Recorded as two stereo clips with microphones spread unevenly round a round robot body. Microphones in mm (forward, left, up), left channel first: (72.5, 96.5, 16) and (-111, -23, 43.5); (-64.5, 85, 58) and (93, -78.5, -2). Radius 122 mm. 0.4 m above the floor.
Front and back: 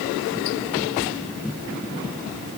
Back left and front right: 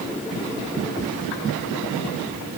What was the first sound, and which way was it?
Only background noise.